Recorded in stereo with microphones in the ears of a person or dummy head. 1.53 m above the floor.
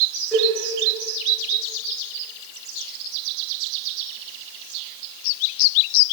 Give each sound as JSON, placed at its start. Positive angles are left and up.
{"t": 0.3, "sound": "a cowbell", "side_deg": 5, "distance_m": 3.0}